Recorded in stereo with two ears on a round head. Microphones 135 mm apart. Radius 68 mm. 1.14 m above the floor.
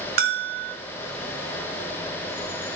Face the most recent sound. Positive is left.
turn(degrees=-65)  # may be behind; listen again after turning